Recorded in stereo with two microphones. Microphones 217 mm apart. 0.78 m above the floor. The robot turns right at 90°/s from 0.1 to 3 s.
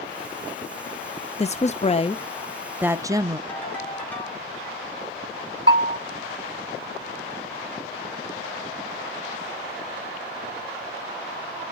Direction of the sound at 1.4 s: 65° left.